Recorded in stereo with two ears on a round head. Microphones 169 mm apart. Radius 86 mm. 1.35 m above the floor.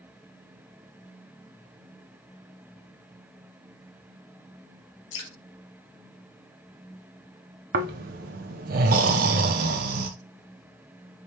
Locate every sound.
5.1 s dripping: 70° left (ahead or behind), 1.6 m
7.7 s snoring: 50° right (ahead or behind), 0.6 m